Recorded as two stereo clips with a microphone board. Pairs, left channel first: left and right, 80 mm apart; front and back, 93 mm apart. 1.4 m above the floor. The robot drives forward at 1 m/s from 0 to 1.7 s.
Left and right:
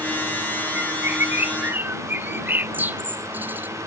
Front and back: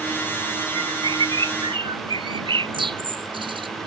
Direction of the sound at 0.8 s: 150° right.